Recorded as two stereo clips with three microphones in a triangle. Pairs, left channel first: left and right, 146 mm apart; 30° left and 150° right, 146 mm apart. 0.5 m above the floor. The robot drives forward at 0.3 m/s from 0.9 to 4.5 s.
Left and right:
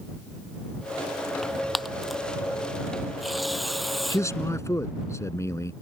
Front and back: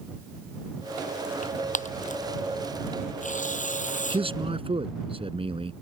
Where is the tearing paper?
Straight ahead.